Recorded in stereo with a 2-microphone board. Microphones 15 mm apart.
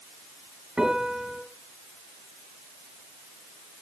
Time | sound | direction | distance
0.8 | a piano | 55° right (ahead or behind) | 3.5 m